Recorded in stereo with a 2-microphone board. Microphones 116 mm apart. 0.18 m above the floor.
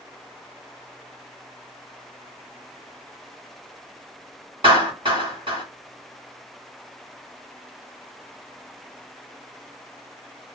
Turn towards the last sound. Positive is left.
turn(degrees=-45)  # may be behind; listen again after turning